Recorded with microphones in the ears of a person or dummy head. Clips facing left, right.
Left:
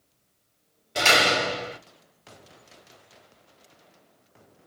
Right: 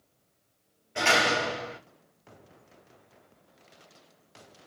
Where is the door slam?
50° left (ahead or behind), 2.5 m.